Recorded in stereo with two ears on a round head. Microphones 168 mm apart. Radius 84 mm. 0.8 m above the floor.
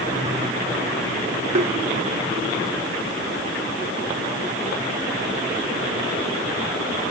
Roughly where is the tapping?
Right.